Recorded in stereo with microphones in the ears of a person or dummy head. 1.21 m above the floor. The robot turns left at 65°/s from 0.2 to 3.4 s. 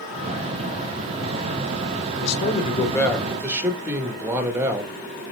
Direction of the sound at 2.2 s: 65° left.